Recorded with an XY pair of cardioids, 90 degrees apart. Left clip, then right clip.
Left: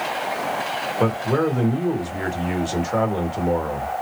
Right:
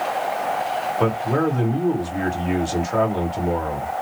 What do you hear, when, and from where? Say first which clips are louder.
1.0 s a man speaking: left 2 dB; 5° left, 1.7 m